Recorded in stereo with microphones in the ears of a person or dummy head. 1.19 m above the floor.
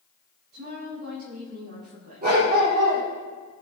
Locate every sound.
0.5 s a woman speaking: 50° right (ahead or behind), 7 m
2.2 s a dog barking: 45° right (ahead or behind), 7.5 m